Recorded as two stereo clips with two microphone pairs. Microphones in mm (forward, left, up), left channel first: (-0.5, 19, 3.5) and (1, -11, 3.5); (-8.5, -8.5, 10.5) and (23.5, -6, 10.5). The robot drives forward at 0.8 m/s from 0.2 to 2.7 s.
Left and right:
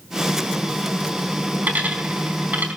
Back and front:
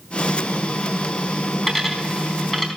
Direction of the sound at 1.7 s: 85° right.